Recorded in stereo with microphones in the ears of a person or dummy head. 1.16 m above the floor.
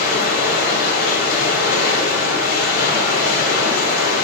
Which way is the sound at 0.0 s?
60° left (ahead or behind).